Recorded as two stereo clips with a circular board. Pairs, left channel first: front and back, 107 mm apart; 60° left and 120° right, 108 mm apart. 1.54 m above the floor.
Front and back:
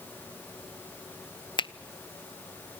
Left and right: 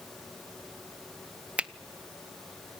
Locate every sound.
1.6 s a finger snap: 40° right, 0.6 m